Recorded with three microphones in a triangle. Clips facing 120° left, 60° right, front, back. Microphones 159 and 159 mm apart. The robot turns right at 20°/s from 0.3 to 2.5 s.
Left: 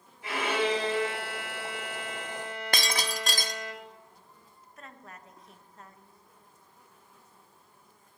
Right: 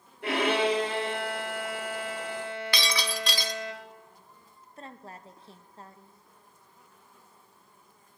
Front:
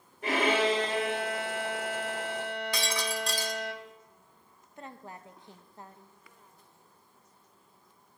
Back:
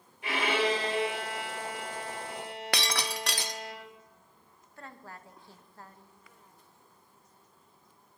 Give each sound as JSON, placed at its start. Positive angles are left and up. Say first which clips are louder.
{"t": 0.2, "sound": "a violin", "louder": "right 3 dB, front 3 dB", "azimuth_deg": -45, "distance_m": 2.5}
{"t": 2.7, "sound": "breaking glass", "louder": "left 1 dB, back 2 dB", "azimuth_deg": 165, "distance_m": 0.6}
{"t": 4.8, "sound": "a woman speaking", "louder": "right 4 dB, front 2 dB", "azimuth_deg": -50, "distance_m": 0.6}